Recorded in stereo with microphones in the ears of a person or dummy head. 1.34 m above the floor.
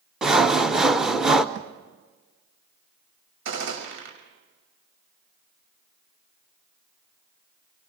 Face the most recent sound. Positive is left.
turn(degrees=-70)  # may be behind; listen again after turning